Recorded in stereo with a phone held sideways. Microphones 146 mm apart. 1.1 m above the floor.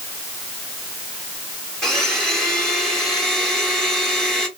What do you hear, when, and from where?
1.8 s a blender: centre (ahead or behind), 1.2 m